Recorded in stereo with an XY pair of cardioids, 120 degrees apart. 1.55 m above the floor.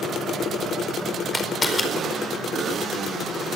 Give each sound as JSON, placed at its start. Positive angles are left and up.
{"t": 1.3, "sound": "a camera shutter", "azimuth_deg": 20, "distance_m": 4.5}